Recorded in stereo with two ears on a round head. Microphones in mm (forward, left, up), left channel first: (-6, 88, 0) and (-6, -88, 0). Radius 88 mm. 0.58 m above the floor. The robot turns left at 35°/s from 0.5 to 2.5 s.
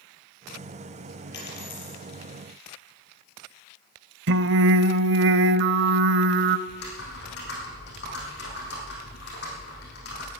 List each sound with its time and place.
1.3 s a dropped coin: 60° left (ahead or behind), 6 m; by 2.0 s 35° left (ahead or behind), 6 m
4.3 s singing: 65° right (ahead or behind), 0.7 m
6.7 s typing on a keyboard: 60° left (ahead or behind), 5.5 m